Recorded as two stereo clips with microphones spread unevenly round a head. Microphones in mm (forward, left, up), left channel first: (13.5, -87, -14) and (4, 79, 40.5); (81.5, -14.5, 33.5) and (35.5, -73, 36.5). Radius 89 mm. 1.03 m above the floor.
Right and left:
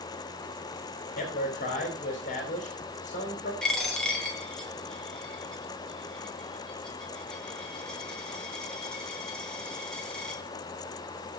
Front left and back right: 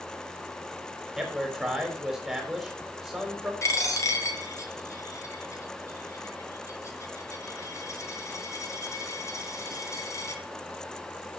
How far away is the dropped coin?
About 2.5 m.